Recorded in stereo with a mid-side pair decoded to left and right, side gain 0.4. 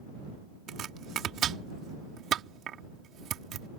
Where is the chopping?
70° right.